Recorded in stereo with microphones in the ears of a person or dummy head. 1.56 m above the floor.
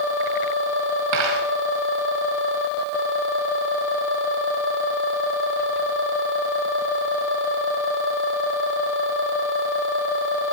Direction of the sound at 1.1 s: 70° right (ahead or behind).